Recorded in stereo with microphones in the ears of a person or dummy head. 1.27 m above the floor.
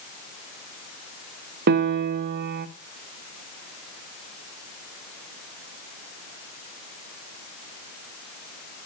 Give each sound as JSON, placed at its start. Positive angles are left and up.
{"t": 1.7, "sound": "a piano", "side_deg": -55, "distance_m": 0.9}